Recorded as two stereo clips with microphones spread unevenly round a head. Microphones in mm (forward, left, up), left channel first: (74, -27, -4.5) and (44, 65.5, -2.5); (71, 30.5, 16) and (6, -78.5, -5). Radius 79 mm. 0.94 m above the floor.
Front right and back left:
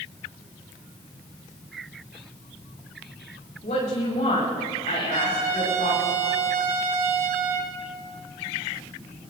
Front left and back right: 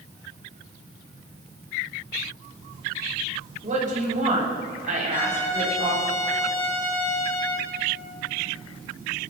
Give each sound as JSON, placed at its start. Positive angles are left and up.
{"t": 3.6, "sound": "a woman speaking", "azimuth_deg": -100, "distance_m": 7.0}
{"t": 5.1, "sound": "a trumpet", "azimuth_deg": 135, "distance_m": 2.0}